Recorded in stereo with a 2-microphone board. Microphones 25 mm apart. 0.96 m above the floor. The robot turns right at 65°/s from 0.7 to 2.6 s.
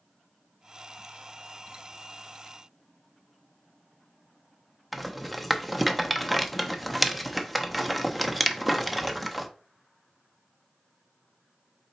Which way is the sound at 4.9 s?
Centre (ahead or behind).